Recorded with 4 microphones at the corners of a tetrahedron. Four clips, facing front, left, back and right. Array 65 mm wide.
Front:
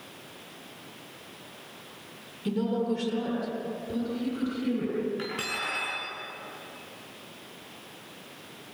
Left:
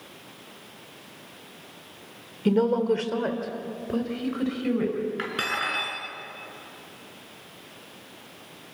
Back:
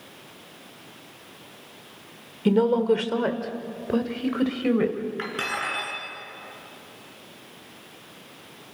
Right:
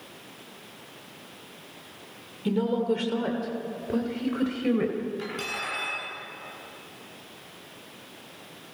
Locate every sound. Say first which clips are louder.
2.5 s a woman speaking: left 4 dB, back 8 dB; 150° left, 2.5 m; by 5.0 s 165° right, 3.5 m
5.2 s cutlery clinking: left 4 dB, back 4 dB; 120° left, 6.5 m